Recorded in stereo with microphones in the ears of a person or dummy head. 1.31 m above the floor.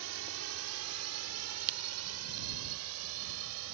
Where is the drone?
60° right (ahead or behind); by 3.8 s 75° right (ahead or behind).